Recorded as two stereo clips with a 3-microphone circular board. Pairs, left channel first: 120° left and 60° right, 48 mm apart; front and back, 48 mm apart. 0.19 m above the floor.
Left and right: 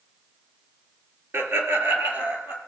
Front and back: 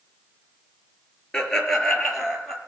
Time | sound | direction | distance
1.3 | laughter | 75° right | 3.5 m